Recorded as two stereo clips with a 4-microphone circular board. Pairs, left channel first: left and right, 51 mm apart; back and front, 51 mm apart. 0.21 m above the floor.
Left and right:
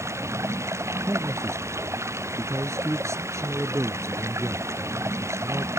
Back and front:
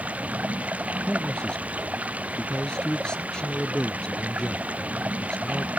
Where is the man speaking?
105° right.